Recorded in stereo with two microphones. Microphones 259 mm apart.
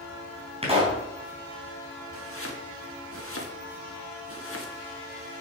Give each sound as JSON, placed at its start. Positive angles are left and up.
{"t": 0.6, "sound": "a pop", "side_deg": -20, "distance_m": 3.5}
{"t": 2.1, "sound": "chopping", "side_deg": 55, "distance_m": 1.7}